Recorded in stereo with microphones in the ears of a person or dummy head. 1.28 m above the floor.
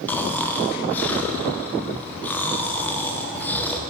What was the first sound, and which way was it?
Snoring, 10° left (ahead or behind).